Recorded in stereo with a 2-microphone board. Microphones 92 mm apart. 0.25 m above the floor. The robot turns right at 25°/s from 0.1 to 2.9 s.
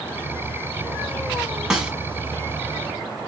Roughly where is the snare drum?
Centre.